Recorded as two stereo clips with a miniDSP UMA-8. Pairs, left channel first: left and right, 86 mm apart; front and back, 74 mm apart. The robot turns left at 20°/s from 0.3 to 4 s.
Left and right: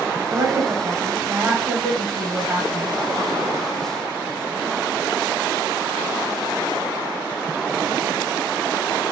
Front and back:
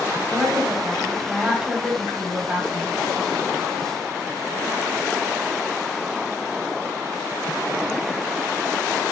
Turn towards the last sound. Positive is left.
turn(degrees=-175)